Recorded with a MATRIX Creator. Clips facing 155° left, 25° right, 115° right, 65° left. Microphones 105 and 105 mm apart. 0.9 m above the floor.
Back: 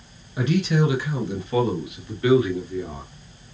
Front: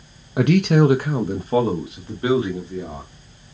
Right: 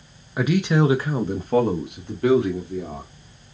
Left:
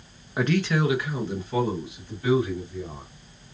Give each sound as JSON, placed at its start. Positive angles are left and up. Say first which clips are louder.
{"t": 0.4, "sound": "a man speaking", "louder": "front 6 dB, right 4 dB", "azimuth_deg": -20, "distance_m": 0.5}